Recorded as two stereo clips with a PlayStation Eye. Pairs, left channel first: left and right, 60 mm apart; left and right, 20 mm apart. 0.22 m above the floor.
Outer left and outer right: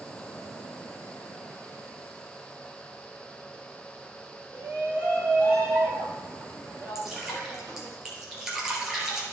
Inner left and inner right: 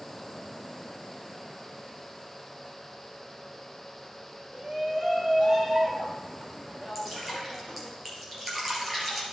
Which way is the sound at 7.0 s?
10° right (ahead or behind).